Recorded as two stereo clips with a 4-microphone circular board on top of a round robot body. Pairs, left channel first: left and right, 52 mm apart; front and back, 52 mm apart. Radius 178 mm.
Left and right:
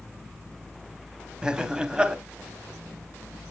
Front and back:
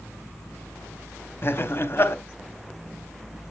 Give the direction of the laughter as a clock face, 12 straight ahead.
1 o'clock.